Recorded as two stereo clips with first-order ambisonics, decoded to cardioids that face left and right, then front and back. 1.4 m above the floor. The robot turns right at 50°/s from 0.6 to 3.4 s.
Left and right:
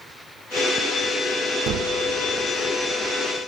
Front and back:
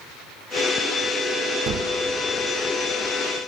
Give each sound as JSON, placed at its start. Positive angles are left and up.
{"t": 1.7, "sound": "a gunshot", "azimuth_deg": -130, "distance_m": 1.0}